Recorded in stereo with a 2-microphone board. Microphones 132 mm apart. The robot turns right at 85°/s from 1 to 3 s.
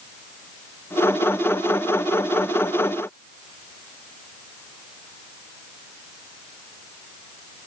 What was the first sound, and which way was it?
Only background noise.